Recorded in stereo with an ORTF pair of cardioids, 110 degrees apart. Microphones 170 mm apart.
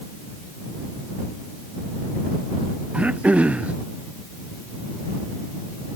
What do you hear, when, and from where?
2.9 s throat clearing: 10° right